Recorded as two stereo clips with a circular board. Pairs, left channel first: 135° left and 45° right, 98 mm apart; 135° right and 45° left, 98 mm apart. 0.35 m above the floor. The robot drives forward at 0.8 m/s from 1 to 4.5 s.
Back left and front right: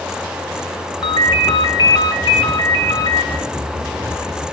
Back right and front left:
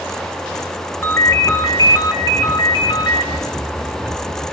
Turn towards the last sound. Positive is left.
turn(degrees=175)